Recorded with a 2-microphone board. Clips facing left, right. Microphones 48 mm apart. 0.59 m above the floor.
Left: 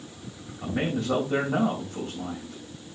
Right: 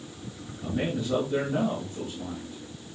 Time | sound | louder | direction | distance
0.6 | a man speaking | left 2 dB | 80° left | 3.5 m